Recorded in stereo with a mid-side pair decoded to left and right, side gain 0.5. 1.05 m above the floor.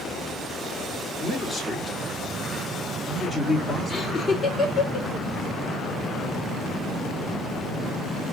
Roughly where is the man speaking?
Ahead.